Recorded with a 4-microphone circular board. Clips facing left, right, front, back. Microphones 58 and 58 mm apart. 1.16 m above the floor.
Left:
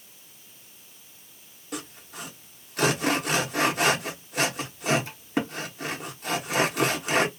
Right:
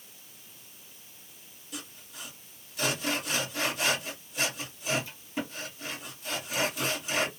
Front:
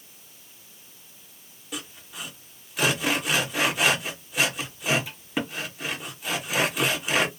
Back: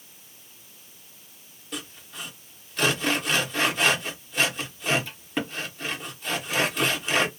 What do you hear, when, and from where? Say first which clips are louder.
1.7 s sawing: left 7 dB, even; 80° left, 0.7 m